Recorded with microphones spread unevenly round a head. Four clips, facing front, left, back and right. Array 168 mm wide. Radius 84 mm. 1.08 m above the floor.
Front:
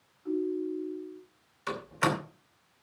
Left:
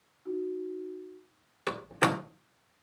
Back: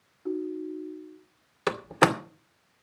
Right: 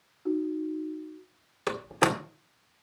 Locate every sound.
0.2 s a ringtone: 125° right, 2.5 m
1.7 s a door slam: 165° right, 2 m